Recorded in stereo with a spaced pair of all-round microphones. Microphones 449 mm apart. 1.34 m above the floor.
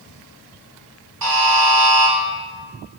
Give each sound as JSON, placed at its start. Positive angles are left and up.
{"t": 1.2, "sound": "a buzzer", "side_deg": -50, "distance_m": 0.7}